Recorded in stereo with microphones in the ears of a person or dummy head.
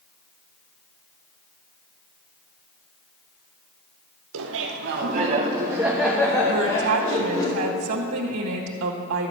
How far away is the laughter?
About 1.4 m.